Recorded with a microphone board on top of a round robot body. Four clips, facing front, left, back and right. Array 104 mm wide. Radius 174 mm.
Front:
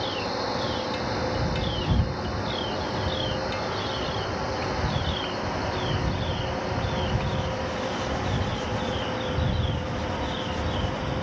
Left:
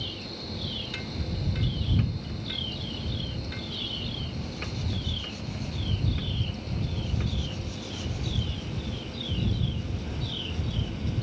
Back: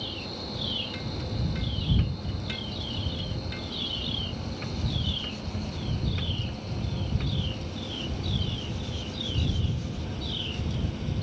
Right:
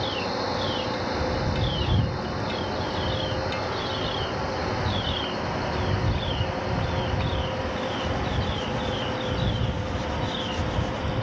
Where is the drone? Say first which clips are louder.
Right 12 dB, front 10 dB; 45° right.